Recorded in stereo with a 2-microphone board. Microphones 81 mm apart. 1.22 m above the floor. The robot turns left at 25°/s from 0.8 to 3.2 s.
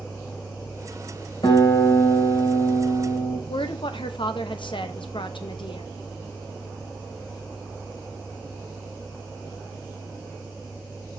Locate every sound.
1.4 s a guitar: 120° left, 3 m; by 3.4 s 75° left, 3 m
3.5 s a woman speaking: 85° left, 0.9 m